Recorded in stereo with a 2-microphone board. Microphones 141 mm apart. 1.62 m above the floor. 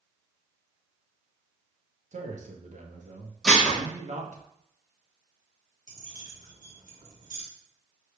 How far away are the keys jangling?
About 1.2 m.